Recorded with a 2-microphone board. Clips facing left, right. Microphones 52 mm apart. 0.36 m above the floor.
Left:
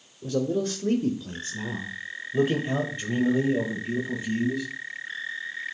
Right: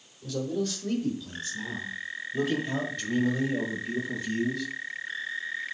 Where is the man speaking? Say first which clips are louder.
Left 4 dB; 30° left (ahead or behind), 1.2 m; by 4.7 s 15° left (ahead or behind), 2 m.